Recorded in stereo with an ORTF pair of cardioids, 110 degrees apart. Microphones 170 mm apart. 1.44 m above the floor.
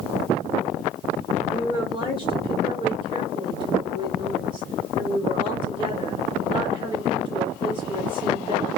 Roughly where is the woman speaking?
Ahead right.